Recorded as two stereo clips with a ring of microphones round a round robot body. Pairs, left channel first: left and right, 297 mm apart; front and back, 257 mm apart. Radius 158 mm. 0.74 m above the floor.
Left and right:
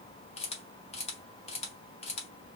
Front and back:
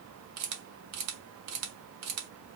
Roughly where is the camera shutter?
Behind.